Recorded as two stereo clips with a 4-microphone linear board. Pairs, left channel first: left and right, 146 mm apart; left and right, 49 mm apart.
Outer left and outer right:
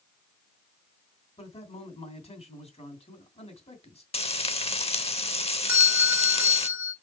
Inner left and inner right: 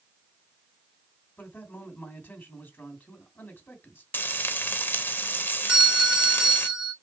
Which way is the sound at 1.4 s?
45° left (ahead or behind).